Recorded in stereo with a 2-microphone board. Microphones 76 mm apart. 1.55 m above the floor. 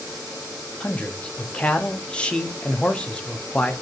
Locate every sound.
0.8 s a man speaking: 15° left (ahead or behind), 0.5 m